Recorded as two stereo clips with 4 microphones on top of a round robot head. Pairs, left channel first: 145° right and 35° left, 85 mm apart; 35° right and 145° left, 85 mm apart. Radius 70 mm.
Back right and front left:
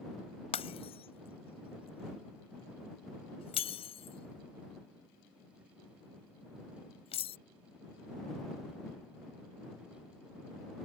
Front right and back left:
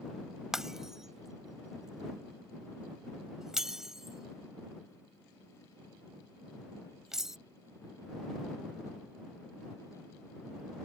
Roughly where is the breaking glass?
Behind right.